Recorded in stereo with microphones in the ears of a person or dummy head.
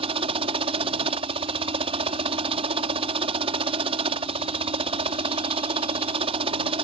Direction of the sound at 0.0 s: 30° right (ahead or behind).